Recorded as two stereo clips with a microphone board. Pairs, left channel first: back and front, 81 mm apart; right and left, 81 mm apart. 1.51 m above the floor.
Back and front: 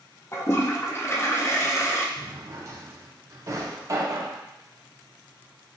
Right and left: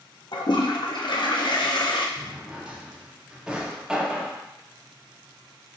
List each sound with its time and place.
0.3 s a toilet flushing: 120° right, 0.5 m
2.2 s a drawer: 15° left, 0.7 m